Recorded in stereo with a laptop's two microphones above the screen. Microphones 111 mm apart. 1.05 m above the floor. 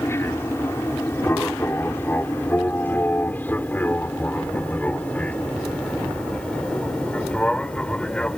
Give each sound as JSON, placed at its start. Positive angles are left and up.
{"t": 0.0, "sound": "an aircraft", "side_deg": 20}